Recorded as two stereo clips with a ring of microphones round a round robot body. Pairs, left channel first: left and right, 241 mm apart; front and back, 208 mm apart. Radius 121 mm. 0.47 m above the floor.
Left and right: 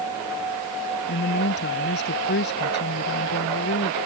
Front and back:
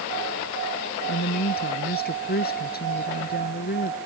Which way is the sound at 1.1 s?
40° left.